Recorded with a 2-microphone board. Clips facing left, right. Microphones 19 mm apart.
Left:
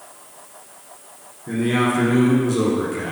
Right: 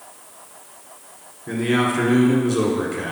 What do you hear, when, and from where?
1.5 s a man speaking: 15° right (ahead or behind), 1.3 m